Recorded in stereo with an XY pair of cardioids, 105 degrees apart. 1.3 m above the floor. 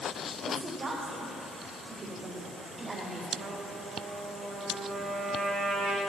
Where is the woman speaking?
40° right, 3.5 m.